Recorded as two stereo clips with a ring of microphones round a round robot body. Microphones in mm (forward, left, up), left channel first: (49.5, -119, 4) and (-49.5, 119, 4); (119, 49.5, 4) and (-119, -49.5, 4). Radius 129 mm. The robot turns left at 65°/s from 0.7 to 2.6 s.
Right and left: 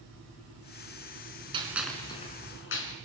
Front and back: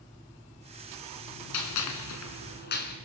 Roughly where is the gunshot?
Ahead left.